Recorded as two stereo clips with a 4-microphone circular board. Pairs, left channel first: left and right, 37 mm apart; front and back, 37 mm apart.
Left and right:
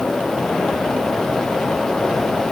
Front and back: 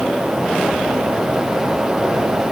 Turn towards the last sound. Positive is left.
No sound to turn to.